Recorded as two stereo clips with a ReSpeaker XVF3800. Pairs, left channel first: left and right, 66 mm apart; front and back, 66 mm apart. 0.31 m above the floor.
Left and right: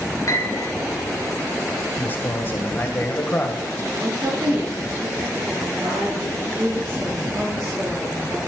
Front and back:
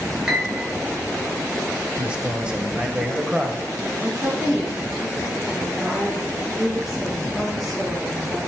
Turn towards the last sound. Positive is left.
turn(degrees=-90)